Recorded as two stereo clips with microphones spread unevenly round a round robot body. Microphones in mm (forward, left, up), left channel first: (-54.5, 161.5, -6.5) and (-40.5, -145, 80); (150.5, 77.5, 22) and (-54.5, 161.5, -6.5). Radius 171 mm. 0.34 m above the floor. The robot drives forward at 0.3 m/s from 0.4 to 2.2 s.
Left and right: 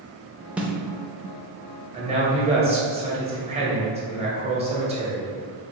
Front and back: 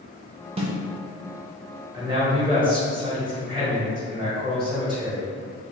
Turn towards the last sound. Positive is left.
turn(degrees=-165)